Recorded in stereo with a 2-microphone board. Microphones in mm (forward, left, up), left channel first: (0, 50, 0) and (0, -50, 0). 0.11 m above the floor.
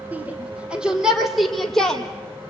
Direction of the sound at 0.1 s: 15° right (ahead or behind).